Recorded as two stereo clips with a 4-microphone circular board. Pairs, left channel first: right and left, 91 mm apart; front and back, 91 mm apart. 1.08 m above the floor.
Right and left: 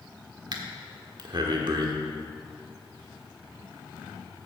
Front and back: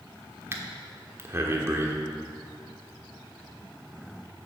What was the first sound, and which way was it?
Breathing, 120° left.